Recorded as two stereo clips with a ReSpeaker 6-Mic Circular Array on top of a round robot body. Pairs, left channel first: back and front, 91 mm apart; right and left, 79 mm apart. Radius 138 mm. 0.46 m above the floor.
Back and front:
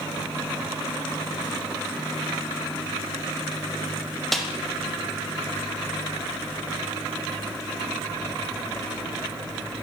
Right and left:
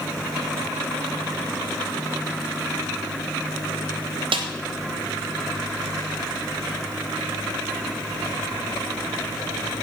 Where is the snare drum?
90° left, 0.8 m.